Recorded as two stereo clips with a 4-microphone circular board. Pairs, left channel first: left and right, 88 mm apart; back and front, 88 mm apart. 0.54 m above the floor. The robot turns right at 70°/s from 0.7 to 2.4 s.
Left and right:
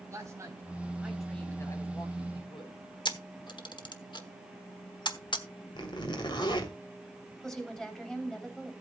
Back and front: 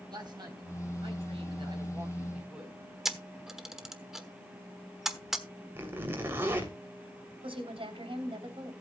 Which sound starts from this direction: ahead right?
A man speaking, at 0.1 s.